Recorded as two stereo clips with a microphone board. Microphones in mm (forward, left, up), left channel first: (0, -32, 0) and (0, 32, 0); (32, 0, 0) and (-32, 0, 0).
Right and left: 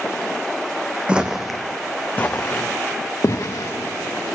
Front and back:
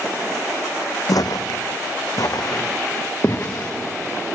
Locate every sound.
1.1 s footsteps: 20° left, 0.9 m; by 3.7 s 50° right, 1.9 m